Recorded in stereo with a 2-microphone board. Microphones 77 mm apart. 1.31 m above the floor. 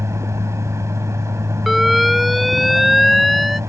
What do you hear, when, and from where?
0.0 s a vehicle: 40° right (ahead or behind)
1.7 s an alarm: centre (ahead or behind)